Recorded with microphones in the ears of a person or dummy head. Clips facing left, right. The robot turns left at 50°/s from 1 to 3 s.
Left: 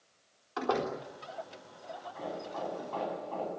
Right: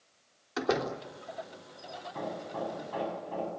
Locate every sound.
0.6 s a door slam: 20° right (ahead or behind), 3.5 m
2.1 s hammering: 125° right, 9.5 m; by 3.5 s 170° right, 9.5 m